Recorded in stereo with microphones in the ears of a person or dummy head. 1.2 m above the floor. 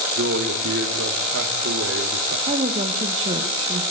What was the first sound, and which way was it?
A man speaking, 75° right (ahead or behind).